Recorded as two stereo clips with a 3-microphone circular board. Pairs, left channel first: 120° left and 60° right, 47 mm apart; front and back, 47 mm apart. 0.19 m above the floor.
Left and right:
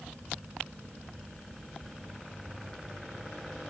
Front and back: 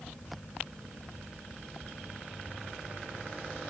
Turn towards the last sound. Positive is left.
No sound to turn to.